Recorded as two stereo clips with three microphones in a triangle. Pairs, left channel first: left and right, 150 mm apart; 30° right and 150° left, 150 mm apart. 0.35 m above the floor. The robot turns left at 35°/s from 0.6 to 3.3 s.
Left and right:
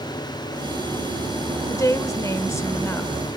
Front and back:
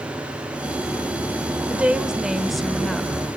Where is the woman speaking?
90° left, 0.9 m; by 3.1 s 40° left, 0.9 m.